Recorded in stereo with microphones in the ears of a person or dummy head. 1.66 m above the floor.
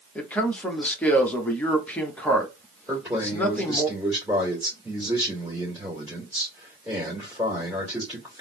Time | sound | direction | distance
0.1 | a man speaking | 5° left (ahead or behind) | 0.8 m
2.9 | a man speaking | 10° right (ahead or behind) | 2 m